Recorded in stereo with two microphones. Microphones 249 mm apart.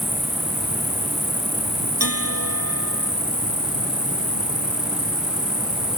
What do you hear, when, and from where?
0.0 s an insect: 60° left (ahead or behind)
2.0 s a bell: 70° right (ahead or behind)